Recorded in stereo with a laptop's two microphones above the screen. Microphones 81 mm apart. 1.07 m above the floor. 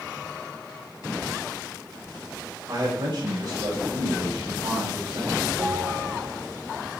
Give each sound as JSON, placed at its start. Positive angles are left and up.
{"t": 2.7, "sound": "a man speaking", "side_deg": -45, "distance_m": 5.0}
{"t": 5.6, "sound": "a bell", "side_deg": -30, "distance_m": 3.0}